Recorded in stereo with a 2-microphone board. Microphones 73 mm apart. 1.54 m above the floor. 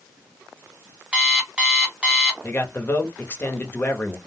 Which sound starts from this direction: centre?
An alarm clock, at 1.1 s.